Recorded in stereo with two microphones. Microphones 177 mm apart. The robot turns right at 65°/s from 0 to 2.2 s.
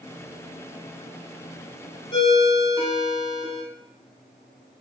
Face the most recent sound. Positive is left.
turn(degrees=30)  # may be behind; listen again after turning